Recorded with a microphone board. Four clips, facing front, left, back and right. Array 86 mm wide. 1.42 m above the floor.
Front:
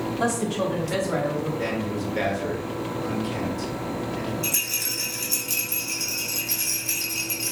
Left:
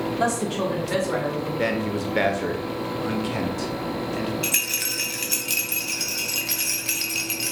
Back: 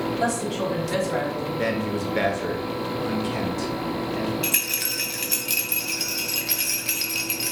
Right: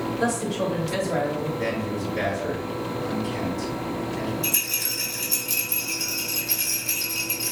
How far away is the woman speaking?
About 1.0 m.